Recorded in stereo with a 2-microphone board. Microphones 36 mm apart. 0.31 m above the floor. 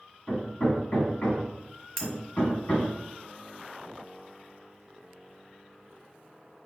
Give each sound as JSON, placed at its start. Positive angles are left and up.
{"t": 0.3, "sound": "hammering", "side_deg": 45, "distance_m": 1.1}
{"t": 2.0, "sound": "cutlery clinking", "side_deg": 10, "distance_m": 1.4}